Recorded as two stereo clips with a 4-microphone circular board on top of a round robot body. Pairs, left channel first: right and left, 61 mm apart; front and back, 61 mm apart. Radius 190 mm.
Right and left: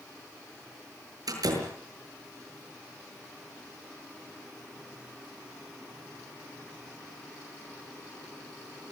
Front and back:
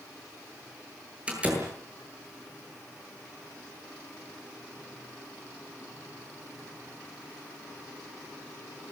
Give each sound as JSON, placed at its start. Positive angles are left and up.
{"t": 1.3, "sound": "a door slam", "azimuth_deg": 110, "distance_m": 8.5}